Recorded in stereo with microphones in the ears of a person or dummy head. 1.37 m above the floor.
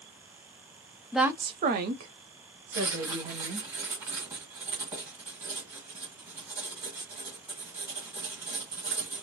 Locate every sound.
1.1 s a woman speaking: centre (ahead or behind), 0.5 m; by 3.7 s 85° right, 1.9 m
2.7 s writing: 20° right (ahead or behind), 1.5 m